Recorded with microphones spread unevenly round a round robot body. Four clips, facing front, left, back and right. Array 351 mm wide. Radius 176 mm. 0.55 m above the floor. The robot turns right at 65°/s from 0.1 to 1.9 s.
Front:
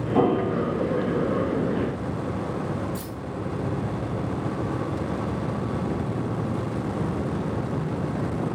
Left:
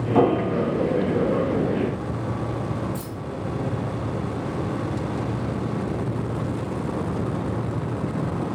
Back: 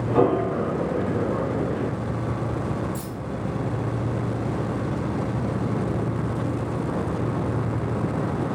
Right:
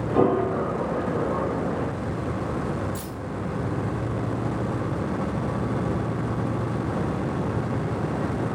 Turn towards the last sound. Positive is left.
turn(degrees=-70)